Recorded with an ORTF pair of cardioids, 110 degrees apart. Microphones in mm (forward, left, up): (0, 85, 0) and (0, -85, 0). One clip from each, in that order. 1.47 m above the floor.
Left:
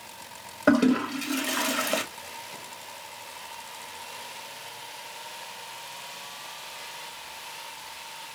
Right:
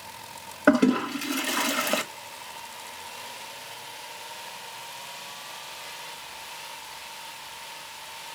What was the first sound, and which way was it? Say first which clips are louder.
A toilet flushing: right 1 dB; 10° right.